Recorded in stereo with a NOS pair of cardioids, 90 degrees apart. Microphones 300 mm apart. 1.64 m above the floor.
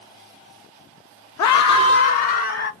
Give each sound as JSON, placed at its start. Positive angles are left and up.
{"t": 1.4, "sound": "a scream", "azimuth_deg": 65, "distance_m": 0.6}